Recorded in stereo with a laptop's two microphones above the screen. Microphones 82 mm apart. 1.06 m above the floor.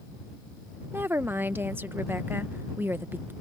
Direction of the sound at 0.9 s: 25° right (ahead or behind).